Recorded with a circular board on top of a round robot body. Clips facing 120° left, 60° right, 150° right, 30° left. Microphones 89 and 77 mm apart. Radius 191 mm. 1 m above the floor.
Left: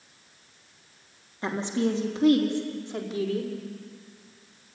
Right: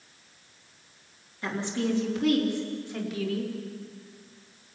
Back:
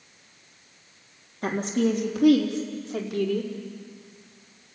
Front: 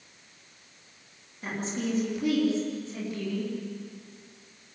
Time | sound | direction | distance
1.4 | a woman speaking | straight behind | 3 m